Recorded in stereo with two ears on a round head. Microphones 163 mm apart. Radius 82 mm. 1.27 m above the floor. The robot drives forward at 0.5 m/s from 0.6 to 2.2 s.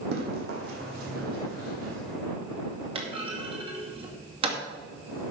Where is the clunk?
30° right (ahead or behind), 2.5 m.